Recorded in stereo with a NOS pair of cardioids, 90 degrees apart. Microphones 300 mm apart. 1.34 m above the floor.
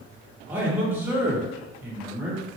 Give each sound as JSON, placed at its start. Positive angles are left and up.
{"t": 0.5, "sound": "a man speaking", "azimuth_deg": -5, "distance_m": 1.9}